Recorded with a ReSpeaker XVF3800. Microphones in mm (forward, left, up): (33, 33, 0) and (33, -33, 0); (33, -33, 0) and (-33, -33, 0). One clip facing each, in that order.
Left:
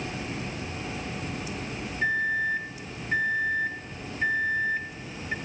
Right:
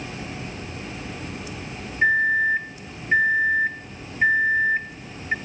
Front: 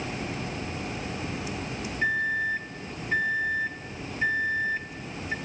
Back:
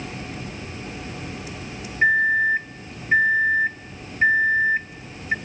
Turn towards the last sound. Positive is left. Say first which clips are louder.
# right 7 dB, back 9 dB
turn(degrees=-130)